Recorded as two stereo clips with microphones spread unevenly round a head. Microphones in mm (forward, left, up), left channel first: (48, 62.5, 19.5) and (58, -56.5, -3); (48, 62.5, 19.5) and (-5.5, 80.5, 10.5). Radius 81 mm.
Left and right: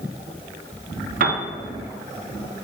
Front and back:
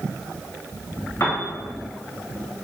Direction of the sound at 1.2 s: 95° right.